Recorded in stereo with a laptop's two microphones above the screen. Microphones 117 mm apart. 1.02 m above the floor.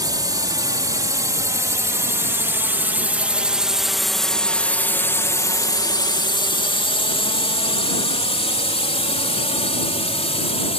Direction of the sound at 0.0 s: 35° right (ahead or behind).